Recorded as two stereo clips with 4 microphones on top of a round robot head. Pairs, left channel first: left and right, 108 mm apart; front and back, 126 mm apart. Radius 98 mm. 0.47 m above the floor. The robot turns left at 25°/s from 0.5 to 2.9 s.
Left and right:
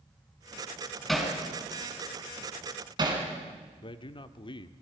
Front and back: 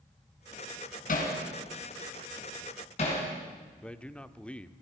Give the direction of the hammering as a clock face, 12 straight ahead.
12 o'clock.